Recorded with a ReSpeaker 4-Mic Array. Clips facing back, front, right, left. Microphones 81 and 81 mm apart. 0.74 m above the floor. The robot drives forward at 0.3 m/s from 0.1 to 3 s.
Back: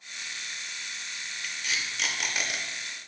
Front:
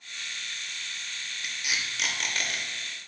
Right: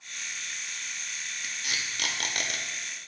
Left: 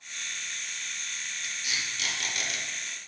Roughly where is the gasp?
No gasp in this recording.